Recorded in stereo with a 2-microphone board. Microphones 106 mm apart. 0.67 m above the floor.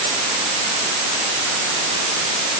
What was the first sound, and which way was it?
Only background noise.